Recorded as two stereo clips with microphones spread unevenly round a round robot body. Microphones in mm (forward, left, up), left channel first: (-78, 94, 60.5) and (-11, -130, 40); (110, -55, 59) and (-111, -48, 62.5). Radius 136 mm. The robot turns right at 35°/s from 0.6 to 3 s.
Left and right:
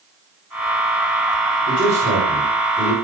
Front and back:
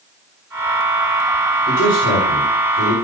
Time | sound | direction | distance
1.7 | a man speaking | 40° right | 3 m